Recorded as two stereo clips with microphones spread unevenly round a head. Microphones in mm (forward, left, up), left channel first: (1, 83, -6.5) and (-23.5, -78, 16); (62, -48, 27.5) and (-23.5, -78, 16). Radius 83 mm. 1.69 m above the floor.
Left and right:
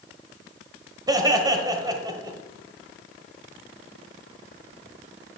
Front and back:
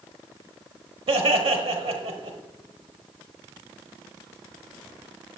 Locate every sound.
1.1 s laughter: 165° right, 1.2 m